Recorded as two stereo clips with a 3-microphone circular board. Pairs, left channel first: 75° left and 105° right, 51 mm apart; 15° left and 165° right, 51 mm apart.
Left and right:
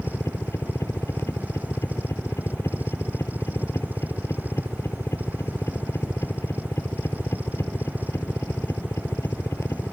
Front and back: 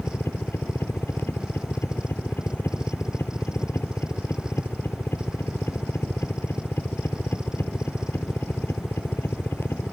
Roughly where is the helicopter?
Ahead left.